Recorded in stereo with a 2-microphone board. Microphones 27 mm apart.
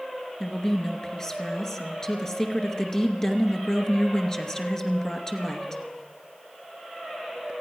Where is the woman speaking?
20° left (ahead or behind), 2 m.